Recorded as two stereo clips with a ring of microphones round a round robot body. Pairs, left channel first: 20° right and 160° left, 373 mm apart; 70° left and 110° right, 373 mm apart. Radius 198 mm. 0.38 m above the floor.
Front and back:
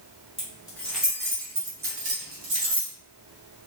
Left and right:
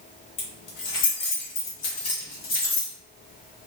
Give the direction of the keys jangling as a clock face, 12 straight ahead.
10 o'clock.